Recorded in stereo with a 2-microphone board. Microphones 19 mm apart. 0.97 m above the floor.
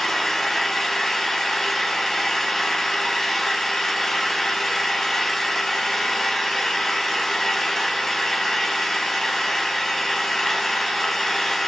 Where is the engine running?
20° left (ahead or behind), 4.5 m.